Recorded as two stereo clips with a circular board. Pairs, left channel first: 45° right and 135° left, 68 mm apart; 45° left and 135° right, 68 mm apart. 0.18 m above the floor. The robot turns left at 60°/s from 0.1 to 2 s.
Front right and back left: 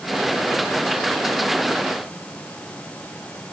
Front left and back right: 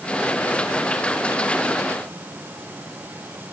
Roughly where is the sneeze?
No sneeze in this recording.